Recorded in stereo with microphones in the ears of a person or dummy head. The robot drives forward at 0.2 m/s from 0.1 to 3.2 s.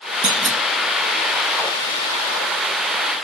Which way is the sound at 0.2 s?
35° right (ahead or behind).